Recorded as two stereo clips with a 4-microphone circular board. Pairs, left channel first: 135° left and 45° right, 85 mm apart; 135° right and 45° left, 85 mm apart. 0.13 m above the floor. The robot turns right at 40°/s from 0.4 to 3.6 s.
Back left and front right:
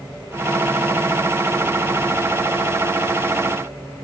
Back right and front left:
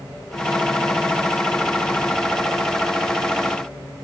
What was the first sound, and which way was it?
Only background noise.